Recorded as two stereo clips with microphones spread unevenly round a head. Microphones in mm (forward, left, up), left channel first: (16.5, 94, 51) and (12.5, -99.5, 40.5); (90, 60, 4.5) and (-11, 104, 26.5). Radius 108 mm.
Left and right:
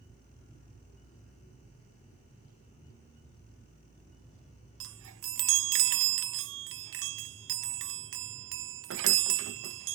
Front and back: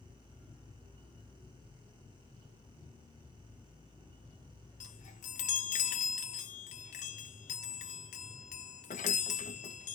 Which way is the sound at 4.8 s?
70° right.